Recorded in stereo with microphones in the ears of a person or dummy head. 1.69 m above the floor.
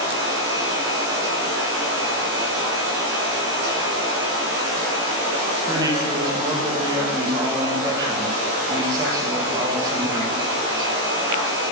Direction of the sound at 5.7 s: 25° right (ahead or behind).